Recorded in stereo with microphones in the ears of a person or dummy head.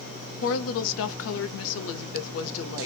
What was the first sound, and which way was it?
A woman speaking, 65° left (ahead or behind).